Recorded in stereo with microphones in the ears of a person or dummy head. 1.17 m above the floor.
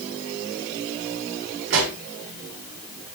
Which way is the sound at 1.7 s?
65° right (ahead or behind).